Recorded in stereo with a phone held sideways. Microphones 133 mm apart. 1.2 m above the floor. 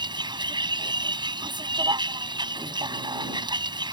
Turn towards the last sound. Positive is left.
turn(degrees=-35)  # may be behind; listen again after turning